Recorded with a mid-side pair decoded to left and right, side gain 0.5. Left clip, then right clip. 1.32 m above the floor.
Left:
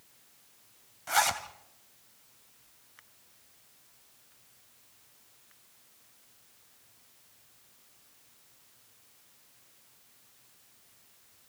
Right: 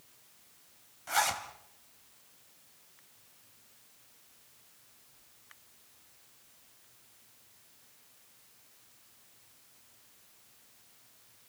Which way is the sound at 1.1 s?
25° left.